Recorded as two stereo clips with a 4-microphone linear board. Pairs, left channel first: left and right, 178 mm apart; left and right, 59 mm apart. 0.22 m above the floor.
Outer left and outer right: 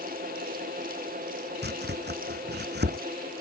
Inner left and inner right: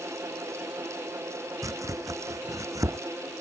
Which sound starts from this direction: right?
Chopping, at 1.6 s.